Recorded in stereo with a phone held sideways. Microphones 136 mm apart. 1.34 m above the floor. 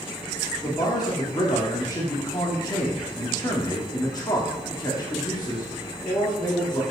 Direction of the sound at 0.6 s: 30° left (ahead or behind).